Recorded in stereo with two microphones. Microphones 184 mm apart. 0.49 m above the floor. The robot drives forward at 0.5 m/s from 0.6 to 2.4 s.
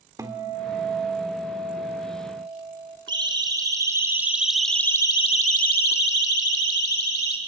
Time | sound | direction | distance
0.2 | a guitar | 20° right (ahead or behind) | 1.5 m
3.1 | a siren | 25° right (ahead or behind) | 3 m